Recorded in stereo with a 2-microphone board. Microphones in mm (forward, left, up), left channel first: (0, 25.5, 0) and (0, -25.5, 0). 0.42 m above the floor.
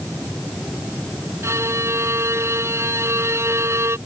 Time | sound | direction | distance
1.4 | a violin | 70° right (ahead or behind) | ?